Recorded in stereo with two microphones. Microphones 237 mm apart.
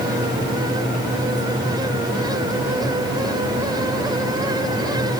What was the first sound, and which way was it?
Only background noise.